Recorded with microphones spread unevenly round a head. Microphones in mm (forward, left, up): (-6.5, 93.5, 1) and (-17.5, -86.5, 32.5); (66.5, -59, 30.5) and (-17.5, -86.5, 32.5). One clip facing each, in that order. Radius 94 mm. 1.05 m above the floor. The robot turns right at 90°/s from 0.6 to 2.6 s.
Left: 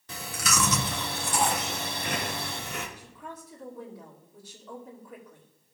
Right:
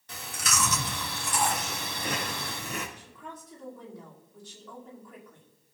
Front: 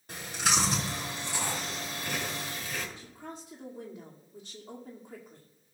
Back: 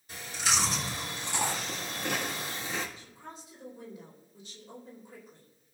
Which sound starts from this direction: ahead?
A woman speaking, at 3.0 s.